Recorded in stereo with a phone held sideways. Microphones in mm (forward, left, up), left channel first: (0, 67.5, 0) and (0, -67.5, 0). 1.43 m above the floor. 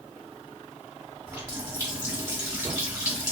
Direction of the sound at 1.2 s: 20° right (ahead or behind).